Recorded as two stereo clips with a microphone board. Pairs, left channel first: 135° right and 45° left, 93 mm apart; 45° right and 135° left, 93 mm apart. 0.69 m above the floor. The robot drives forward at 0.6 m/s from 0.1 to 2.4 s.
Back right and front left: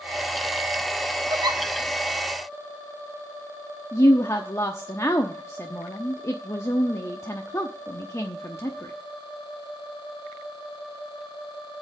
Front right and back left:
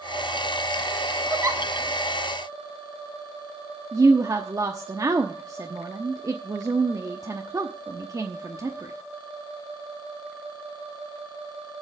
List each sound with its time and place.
1.3 s a giggle: 75° left, 1.3 m; by 1.6 s 85° left, 1.3 m
3.9 s a woman speaking: 175° left, 0.9 m